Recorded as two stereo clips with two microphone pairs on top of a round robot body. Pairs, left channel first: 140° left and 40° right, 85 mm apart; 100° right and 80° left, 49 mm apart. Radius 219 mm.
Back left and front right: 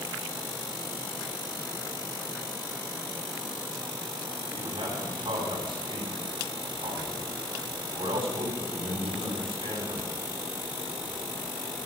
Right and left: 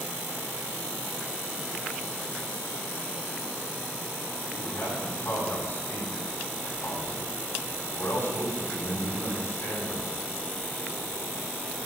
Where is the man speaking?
60° right, 9 m.